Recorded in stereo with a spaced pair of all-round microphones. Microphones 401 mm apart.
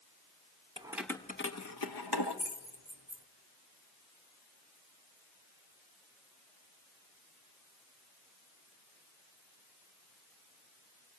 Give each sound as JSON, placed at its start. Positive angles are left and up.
{"t": 0.8, "sound": "keys jangling", "side_deg": -15, "distance_m": 0.9}